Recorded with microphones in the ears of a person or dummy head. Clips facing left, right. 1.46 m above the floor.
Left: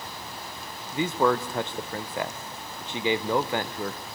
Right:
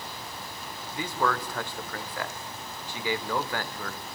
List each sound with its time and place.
0.9 s a man speaking: 25° left (ahead or behind), 0.9 m